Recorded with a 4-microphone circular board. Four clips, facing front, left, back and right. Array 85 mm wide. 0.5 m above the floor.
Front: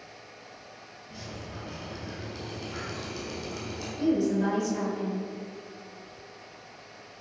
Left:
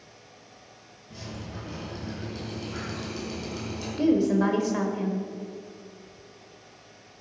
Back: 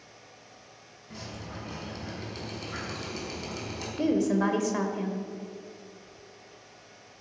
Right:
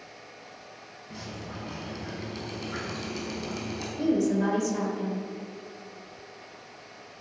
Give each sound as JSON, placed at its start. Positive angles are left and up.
{"t": 1.1, "sound": "dripping", "azimuth_deg": -135, "distance_m": 4.5}
{"t": 4.0, "sound": "a woman speaking", "azimuth_deg": 150, "distance_m": 1.7}